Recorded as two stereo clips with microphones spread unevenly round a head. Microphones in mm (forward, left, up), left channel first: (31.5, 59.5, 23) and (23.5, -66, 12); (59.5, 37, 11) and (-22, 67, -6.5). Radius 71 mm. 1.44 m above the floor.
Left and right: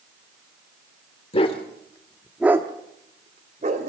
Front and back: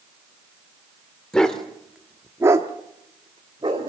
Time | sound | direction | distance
1.3 | a dog barking | 55° left | 1.8 m